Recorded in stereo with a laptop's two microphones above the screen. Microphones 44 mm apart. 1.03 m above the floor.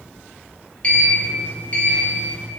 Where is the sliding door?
25° left (ahead or behind), 0.5 m.